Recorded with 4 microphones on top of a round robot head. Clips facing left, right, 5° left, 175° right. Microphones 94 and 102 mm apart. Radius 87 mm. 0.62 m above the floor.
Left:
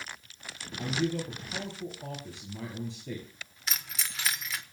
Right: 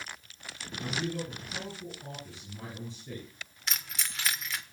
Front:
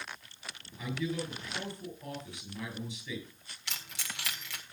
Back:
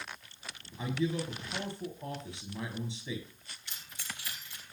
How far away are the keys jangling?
About 1.6 m.